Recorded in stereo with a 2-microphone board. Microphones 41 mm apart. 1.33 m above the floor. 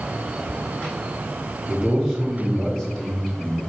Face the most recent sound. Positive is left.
turn(degrees=10)  # may be behind; listen again after turning